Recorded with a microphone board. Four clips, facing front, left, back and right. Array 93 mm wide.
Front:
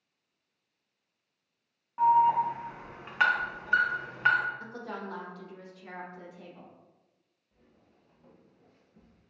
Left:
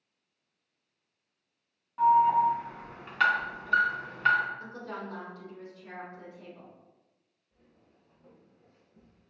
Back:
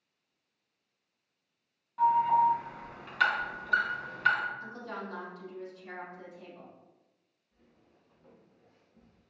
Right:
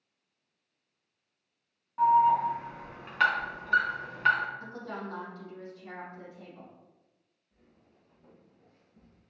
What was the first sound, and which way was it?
An alarm, 10° right.